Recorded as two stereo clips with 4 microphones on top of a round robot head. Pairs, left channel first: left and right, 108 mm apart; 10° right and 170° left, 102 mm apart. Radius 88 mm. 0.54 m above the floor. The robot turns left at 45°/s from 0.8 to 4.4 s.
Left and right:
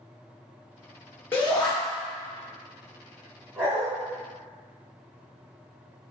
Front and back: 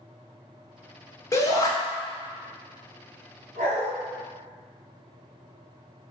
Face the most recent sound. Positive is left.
turn(degrees=160)